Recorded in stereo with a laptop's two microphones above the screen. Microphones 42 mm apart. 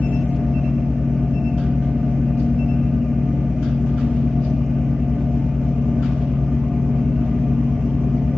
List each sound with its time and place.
0.0 s a fan: centre (ahead or behind), 0.8 m